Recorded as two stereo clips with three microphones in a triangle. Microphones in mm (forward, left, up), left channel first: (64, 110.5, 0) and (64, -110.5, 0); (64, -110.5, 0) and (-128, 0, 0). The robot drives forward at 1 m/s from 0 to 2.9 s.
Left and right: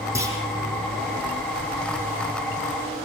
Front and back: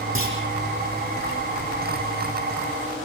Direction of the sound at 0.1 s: 15° right.